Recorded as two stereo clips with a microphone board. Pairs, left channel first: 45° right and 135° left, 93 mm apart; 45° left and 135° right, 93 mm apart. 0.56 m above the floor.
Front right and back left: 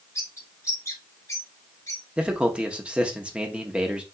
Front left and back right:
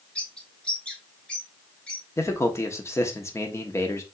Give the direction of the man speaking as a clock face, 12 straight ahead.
10 o'clock.